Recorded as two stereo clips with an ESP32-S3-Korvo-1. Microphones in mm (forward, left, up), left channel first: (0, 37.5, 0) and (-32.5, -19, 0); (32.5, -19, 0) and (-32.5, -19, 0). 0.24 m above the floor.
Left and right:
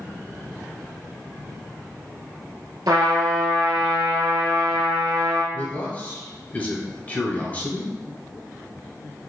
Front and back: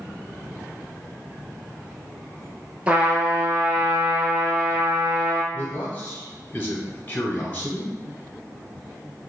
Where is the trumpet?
110° right, 1.1 m.